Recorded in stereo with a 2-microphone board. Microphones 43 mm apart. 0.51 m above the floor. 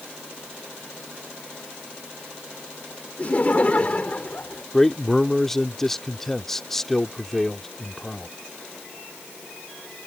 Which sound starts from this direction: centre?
A man speaking, at 4.7 s.